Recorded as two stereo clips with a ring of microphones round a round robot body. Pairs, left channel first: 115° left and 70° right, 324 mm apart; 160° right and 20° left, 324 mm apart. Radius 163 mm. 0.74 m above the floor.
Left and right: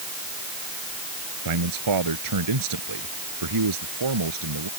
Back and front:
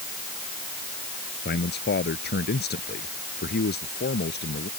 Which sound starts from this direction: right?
A man speaking, at 1.4 s.